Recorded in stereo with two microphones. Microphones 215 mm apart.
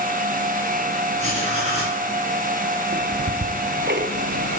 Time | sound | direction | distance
1.2 | writing | 35° right (ahead or behind) | 4 m
2.9 | ticking | 50° right (ahead or behind) | 0.6 m